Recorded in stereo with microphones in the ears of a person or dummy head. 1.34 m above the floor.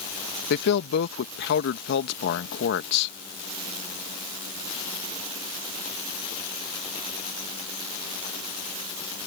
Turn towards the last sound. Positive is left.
turn(degrees=70)  # may be behind; listen again after turning